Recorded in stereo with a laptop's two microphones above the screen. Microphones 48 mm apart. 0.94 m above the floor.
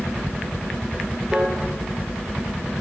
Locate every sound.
1.3 s a piano: 25° right (ahead or behind), 1.4 m